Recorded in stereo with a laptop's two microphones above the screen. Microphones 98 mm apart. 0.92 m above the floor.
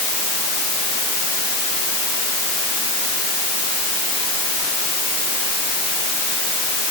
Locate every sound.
Only background noise.